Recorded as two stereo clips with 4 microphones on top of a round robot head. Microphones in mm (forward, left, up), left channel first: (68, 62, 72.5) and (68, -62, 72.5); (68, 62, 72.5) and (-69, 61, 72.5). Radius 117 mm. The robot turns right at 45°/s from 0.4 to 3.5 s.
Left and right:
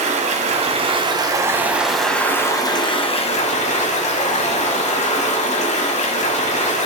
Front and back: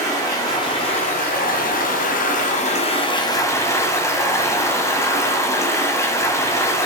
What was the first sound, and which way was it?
Running water, 70° right.